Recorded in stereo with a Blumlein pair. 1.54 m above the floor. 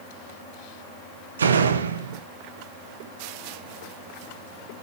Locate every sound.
1.4 s a door slam: 70° right, 0.9 m